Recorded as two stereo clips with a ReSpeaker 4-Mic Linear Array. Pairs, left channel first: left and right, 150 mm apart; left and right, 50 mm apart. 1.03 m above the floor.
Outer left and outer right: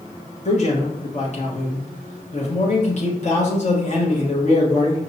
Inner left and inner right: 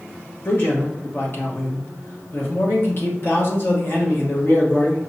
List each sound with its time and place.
0.5 s a man speaking: 50° left (ahead or behind), 1.2 m